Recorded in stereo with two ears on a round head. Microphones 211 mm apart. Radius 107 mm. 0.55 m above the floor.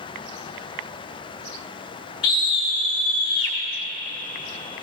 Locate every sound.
2.2 s a scream: 20° left (ahead or behind), 0.9 m